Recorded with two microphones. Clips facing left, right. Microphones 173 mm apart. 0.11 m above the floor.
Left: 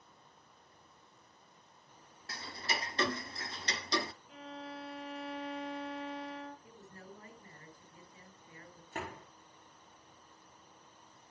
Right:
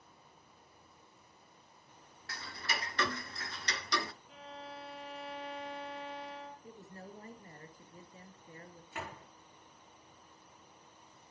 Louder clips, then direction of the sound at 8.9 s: Left 3 dB; 40° left (ahead or behind).